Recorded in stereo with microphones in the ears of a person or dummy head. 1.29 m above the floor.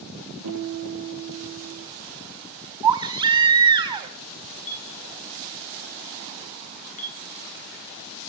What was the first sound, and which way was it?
A guitar, 70° right (ahead or behind).